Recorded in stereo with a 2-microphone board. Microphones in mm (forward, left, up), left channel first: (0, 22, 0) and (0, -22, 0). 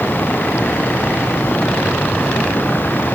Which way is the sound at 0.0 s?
50° left (ahead or behind).